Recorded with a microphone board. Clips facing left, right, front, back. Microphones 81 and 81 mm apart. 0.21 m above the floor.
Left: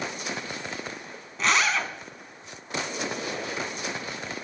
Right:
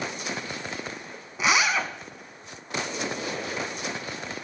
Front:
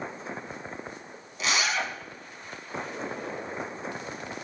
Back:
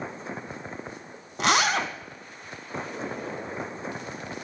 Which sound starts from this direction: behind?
A zipper, at 1.4 s.